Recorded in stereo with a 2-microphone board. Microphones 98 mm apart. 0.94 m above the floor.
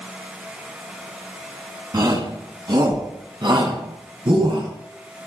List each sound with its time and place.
1.9 s a shout: 50° right (ahead or behind), 7.5 m; by 4.7 s 60° right (ahead or behind), 5 m